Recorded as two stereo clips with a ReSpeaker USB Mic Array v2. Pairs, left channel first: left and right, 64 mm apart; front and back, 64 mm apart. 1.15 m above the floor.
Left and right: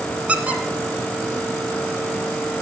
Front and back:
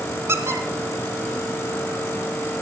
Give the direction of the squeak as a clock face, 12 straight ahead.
5 o'clock.